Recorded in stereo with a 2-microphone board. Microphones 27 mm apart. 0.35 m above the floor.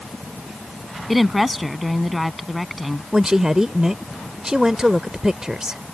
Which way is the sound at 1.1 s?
5° right (ahead or behind).